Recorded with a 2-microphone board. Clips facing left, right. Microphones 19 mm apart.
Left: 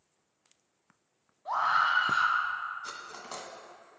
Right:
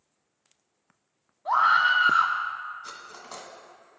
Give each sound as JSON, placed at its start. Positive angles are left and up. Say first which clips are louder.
{"t": 1.4, "sound": "a scream", "louder": "right 6 dB", "side_deg": -40, "distance_m": 2.0}
{"t": 2.8, "sound": "cutlery clinking", "louder": "even", "side_deg": 35, "distance_m": 1.6}